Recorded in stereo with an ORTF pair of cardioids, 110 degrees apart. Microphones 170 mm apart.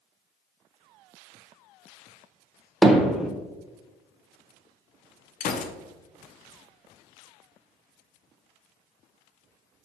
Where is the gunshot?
55° left, 0.5 m.